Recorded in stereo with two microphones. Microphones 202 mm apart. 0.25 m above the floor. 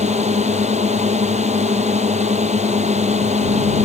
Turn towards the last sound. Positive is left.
turn(degrees=-35)  # may be behind; listen again after turning